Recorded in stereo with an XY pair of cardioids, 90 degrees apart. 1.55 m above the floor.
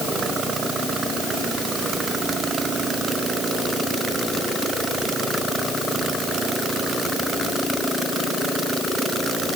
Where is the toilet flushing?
I don't hear a toilet flushing.